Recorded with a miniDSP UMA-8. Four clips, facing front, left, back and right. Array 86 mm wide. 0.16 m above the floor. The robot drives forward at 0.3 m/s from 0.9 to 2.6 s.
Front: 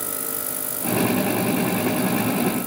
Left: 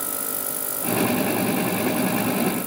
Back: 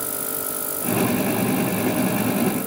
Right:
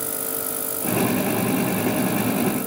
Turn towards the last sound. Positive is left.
No sound to turn to.